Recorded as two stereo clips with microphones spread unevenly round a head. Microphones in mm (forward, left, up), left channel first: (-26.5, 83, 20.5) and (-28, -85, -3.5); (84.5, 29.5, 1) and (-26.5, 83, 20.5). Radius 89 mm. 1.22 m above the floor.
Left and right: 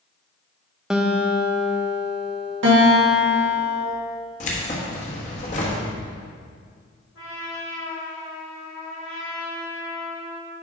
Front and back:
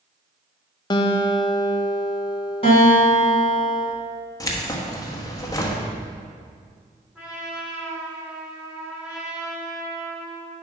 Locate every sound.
0.9 s a guitar: 15° right, 0.6 m
2.6 s a guitar: 85° right, 2 m
4.4 s keys jangling: 40° left, 1.3 m
7.2 s a trumpet: 75° left, 2.5 m